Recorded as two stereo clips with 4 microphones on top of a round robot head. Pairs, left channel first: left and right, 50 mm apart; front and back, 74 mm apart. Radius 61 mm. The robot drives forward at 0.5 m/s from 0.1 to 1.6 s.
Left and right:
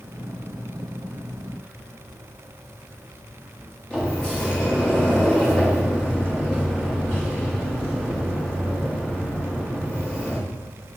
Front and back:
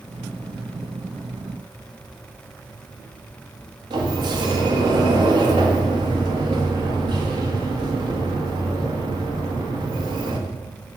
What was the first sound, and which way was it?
A sliding door, 165° left.